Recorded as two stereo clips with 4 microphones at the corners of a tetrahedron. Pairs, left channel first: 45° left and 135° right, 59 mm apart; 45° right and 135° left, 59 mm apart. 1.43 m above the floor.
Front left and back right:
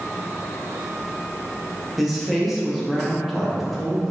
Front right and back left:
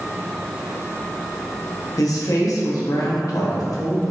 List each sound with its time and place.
2.0 s a woman speaking: 50° right, 0.7 m